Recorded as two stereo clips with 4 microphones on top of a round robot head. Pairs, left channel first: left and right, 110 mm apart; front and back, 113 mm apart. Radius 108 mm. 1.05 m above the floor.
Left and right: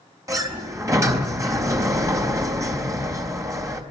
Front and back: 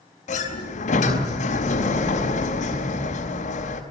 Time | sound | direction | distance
0.3 | a sliding door | 30° right | 4 m